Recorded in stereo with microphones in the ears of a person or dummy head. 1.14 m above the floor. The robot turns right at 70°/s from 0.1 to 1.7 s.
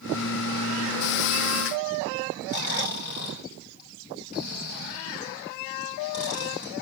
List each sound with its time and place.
2.5 s snoring: 55° left (ahead or behind), 3.5 m